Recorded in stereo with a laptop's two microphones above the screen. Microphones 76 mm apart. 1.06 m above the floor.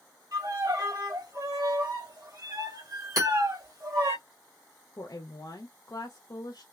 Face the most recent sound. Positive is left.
turn(degrees=50)  # may be behind; listen again after turning